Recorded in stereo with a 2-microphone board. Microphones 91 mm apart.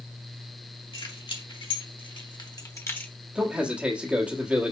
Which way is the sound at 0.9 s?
70° left (ahead or behind).